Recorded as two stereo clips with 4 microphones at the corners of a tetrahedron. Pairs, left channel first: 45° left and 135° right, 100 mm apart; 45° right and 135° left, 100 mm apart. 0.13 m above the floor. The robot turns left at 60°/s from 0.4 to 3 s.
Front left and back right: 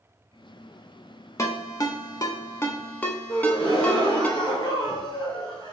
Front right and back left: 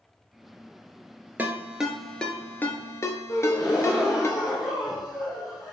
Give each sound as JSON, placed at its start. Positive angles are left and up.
{"t": 1.4, "sound": "a ringtone", "azimuth_deg": 80, "distance_m": 0.7}
{"t": 3.3, "sound": "a gasp", "azimuth_deg": 5, "distance_m": 1.3}